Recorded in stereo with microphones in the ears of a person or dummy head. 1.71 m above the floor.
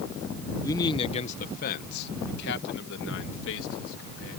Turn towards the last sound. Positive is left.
turn(degrees=80)